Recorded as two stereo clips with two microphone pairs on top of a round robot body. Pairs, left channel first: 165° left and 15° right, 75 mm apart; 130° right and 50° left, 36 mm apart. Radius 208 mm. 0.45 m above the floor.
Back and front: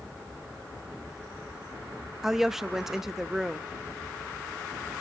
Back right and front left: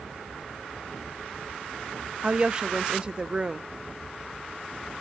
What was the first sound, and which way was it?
A woman speaking, 85° left.